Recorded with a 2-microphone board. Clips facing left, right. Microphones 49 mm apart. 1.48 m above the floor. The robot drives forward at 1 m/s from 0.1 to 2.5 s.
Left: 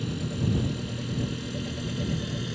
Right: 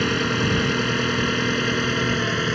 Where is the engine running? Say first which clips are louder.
Right 10 dB; 85° right; by 2.5 s 70° right (ahead or behind).